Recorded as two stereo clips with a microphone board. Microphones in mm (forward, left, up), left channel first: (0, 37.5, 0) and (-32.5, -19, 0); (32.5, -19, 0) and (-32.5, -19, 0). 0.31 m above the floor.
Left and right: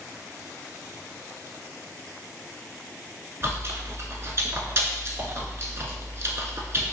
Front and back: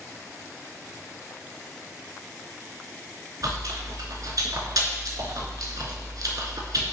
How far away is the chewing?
About 0.6 m.